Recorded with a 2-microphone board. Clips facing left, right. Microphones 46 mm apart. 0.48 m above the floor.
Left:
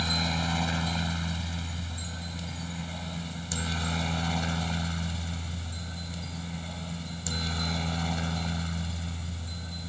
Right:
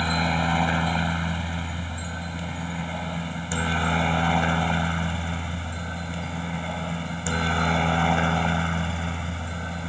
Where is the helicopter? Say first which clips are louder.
Right 6 dB; 25° right (ahead or behind); by 9.9 s 45° right (ahead or behind).